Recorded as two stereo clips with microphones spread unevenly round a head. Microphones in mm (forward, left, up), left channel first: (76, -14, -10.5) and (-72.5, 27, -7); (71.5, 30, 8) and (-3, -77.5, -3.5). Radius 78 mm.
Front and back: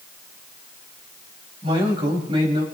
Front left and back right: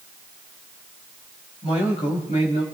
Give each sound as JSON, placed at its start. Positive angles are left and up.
{"t": 1.6, "sound": "a man speaking", "azimuth_deg": 105, "distance_m": 5.5}